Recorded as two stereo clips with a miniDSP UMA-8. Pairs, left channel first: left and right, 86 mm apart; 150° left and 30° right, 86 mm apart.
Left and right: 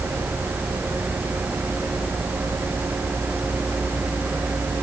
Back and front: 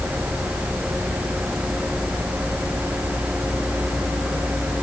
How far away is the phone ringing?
I don't hear a phone ringing.